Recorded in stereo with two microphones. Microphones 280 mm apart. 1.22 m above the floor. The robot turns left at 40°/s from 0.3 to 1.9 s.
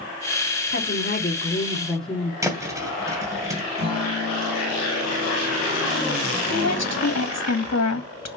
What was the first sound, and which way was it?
A woman speaking, 50° left.